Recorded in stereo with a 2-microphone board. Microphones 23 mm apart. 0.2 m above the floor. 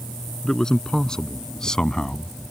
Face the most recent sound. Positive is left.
turn(degrees=25)  # may be behind; listen again after turning